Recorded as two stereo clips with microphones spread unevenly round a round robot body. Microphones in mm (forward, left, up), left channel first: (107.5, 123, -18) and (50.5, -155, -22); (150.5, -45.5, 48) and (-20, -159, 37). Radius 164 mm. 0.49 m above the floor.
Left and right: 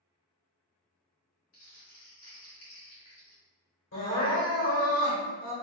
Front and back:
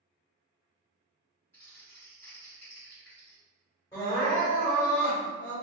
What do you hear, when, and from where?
1.5 s crumpling: 115° left, 1.4 m
3.9 s crying: 105° left, 1.4 m